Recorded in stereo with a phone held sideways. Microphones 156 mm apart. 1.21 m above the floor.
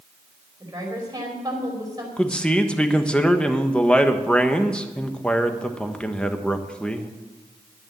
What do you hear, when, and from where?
0.6 s a woman speaking: 25° right (ahead or behind), 4.5 m
2.2 s a man speaking: 5° left (ahead or behind), 1.3 m